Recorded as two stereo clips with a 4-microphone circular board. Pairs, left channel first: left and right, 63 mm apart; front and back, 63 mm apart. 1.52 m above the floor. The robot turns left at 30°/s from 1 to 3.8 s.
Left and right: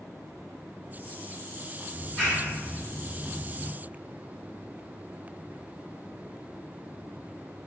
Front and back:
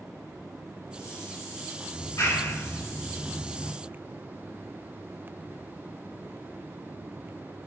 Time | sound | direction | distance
1.9 | a clap | 15° left | 2 m